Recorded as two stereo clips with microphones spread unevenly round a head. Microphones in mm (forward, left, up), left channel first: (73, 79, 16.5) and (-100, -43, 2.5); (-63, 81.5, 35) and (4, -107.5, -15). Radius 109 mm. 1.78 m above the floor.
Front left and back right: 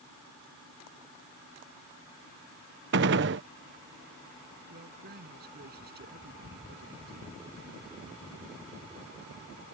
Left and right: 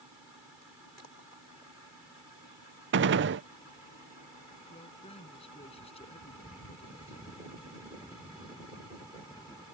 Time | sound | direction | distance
2.9 | a gunshot | 105° right | ?
4.7 | a man speaking | 170° left | ?